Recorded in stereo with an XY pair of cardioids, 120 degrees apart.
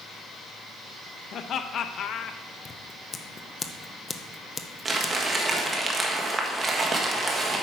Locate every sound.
1.3 s laughter: 55° left, 0.8 m
2.6 s scissors: 25° left, 0.7 m
4.8 s crumpling: 25° right, 1.5 m